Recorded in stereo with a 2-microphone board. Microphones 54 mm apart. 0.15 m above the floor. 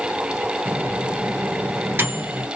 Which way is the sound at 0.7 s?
45° right (ahead or behind).